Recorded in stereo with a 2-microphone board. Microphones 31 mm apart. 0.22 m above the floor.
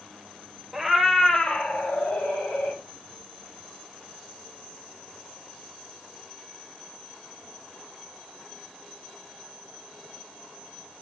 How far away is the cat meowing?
About 1.0 m.